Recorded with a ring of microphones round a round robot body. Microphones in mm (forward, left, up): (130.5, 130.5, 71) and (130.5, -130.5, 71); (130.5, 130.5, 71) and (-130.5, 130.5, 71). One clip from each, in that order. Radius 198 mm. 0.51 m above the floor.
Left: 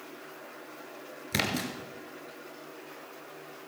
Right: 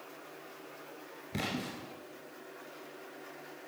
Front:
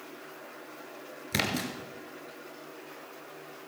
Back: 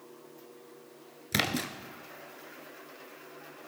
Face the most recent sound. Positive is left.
turn(degrees=120)